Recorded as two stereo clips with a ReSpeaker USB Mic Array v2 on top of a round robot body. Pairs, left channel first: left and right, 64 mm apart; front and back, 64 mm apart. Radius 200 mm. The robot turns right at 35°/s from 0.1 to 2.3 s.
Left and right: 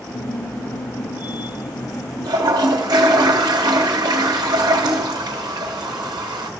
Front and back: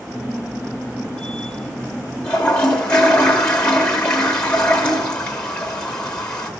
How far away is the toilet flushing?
About 0.6 m.